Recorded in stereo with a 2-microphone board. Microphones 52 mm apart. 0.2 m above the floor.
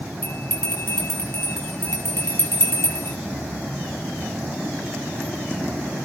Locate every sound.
0.2 s a bell: 50° left (ahead or behind), 6 m